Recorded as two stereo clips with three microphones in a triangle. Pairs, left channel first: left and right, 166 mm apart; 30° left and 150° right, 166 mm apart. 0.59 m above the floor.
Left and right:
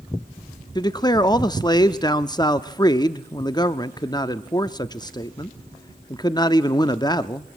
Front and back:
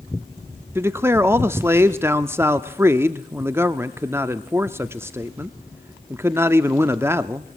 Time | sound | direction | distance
0.8 | a man speaking | 145° left | 0.7 m